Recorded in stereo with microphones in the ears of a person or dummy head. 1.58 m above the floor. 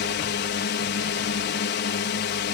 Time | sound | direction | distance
0.0 | a drone | 55° left (ahead or behind) | ?